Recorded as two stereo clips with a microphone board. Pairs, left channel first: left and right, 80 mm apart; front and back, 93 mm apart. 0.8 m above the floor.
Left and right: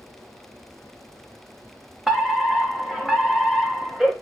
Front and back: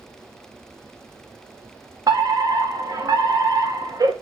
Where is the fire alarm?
175° right, 2.5 m.